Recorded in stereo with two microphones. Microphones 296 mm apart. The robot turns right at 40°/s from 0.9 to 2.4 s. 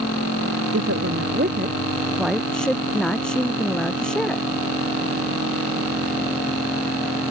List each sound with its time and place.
0.7 s a woman speaking: 55° right; by 4.4 s 5° left